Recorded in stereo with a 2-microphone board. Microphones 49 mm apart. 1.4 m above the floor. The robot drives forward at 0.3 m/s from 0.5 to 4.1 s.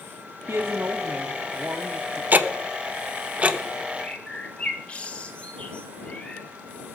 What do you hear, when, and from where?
0.5 s a woman speaking: 50° right (ahead or behind), 0.6 m; by 2.2 s 30° right (ahead or behind), 1.0 m
2.3 s ticking: 35° right (ahead or behind), 0.7 m; by 3.6 s 25° right (ahead or behind), 1.0 m
4.0 s a bird: 25° left (ahead or behind), 1.6 m